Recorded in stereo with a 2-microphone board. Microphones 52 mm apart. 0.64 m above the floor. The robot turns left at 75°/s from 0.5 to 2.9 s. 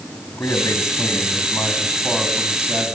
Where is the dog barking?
No dog barking in this recording.